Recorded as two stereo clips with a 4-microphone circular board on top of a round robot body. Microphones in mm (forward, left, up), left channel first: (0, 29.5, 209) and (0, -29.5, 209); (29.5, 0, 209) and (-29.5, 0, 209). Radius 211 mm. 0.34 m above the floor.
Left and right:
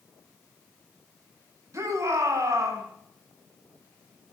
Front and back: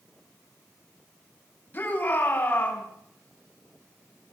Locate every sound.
1.7 s a shout: 60° right, 5 m